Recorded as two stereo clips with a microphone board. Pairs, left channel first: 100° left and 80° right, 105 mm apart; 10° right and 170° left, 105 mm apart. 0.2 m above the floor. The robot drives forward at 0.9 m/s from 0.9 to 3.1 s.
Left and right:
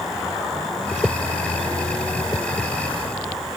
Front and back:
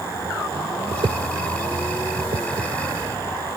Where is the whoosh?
155° right; by 2.7 s 175° right.